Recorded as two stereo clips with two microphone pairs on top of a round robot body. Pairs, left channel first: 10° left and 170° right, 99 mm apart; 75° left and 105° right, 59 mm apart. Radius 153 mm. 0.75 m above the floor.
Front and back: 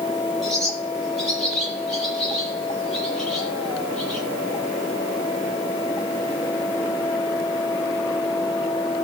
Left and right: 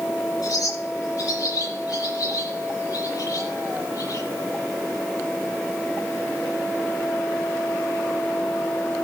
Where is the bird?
100° left, 10 m.